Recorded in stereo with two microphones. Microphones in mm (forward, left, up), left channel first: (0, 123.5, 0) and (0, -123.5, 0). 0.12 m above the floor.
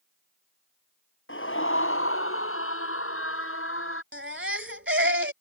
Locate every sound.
1.3 s a scream: 60° left (ahead or behind); by 4.0 s 65° left (ahead or behind)
4.1 s a baby crying: 60° right (ahead or behind)